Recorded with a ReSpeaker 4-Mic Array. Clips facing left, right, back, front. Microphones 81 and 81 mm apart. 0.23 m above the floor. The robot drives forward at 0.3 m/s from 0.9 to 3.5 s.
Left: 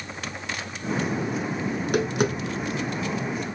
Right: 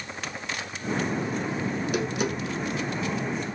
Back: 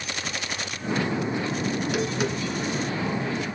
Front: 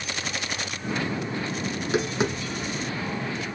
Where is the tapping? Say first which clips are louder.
Left 6 dB, front 4 dB; 55° left, 1.2 m; by 3.6 s 85° left, 1.0 m.